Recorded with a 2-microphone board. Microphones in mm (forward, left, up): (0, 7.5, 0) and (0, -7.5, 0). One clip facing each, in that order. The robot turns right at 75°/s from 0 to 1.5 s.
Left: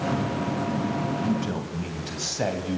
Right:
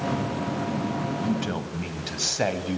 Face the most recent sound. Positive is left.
turn(degrees=-40)  # may be behind; listen again after turning